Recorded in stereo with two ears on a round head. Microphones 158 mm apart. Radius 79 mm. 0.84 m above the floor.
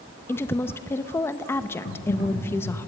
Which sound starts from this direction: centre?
A woman speaking, at 0.3 s.